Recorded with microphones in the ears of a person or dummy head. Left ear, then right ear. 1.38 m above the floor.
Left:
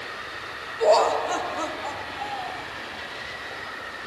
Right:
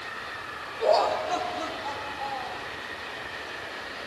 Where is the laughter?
45° left (ahead or behind), 0.7 m; by 2.6 s 40° left (ahead or behind), 1.6 m.